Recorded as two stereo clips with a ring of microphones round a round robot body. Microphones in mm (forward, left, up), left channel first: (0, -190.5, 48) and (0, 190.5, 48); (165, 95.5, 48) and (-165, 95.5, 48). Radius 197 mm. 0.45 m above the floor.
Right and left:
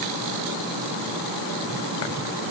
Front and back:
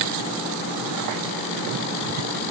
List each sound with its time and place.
Only background noise.